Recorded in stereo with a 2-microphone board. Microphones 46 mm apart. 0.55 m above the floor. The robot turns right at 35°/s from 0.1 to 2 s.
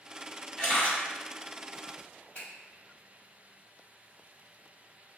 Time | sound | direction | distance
0.6 | a camera shutter | 25° left (ahead or behind) | 1.3 m
2.4 | a finger snap | 30° left (ahead or behind) | 1.4 m